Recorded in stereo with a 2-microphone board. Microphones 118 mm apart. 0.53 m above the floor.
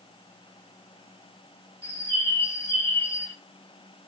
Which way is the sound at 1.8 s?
25° left (ahead or behind).